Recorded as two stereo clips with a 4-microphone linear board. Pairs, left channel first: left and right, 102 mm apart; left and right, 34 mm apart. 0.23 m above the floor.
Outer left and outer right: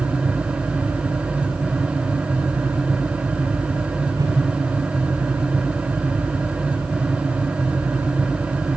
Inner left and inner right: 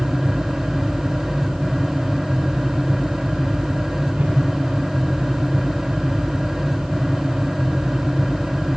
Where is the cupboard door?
I don't hear a cupboard door.